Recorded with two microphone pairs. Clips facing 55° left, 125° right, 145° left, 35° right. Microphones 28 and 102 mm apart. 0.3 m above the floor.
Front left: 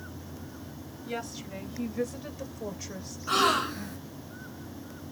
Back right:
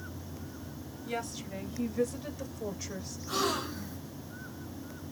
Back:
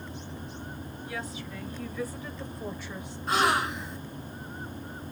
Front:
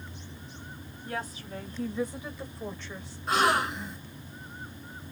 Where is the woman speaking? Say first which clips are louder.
Even, front 3 dB; 25° right, 1.5 m; by 3.2 s 135° left, 1.1 m.